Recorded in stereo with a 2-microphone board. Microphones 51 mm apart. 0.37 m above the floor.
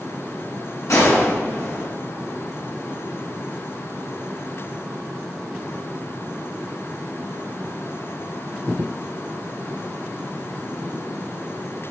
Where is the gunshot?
75° left (ahead or behind), 3 m.